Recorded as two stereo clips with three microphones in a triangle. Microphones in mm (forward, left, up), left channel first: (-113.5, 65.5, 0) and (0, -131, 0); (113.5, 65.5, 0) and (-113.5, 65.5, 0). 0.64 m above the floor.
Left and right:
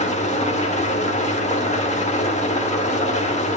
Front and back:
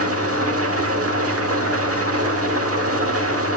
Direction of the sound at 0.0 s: Straight behind.